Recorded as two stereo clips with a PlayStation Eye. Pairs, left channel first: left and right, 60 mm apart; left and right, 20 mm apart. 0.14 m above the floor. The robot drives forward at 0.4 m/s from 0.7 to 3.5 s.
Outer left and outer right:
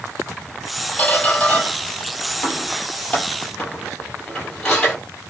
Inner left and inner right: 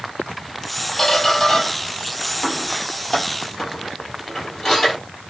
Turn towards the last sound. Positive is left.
turn(degrees=10)  # may be behind; listen again after turning